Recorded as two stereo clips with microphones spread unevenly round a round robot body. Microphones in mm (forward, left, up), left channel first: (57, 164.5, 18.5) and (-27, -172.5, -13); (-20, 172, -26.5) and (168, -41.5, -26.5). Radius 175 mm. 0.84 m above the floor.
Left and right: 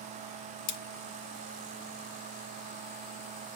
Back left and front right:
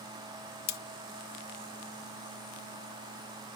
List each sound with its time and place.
0.7 s cutlery clinking: 85° left, 0.8 m